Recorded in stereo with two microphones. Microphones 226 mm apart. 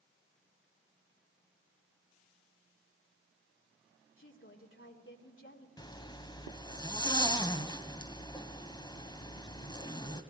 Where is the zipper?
20° left (ahead or behind), 1.4 m.